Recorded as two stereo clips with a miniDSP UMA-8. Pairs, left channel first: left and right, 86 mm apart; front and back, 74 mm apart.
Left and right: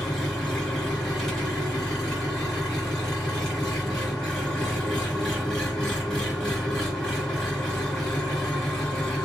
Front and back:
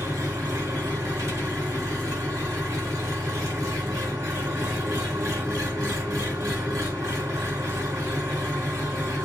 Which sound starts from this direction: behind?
An engine running, at 0.0 s.